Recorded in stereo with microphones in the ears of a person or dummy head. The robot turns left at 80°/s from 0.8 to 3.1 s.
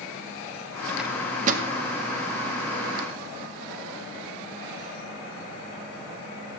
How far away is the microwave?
About 1.7 m.